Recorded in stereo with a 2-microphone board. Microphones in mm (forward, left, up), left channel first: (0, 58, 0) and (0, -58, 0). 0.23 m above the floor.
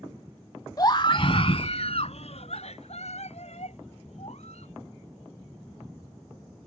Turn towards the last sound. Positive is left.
turn(degrees=70)  # may be behind; listen again after turning